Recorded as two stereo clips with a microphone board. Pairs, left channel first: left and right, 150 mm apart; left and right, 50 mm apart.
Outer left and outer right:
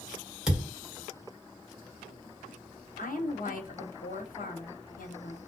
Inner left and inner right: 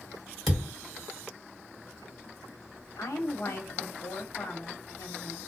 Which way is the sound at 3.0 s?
70° left (ahead or behind).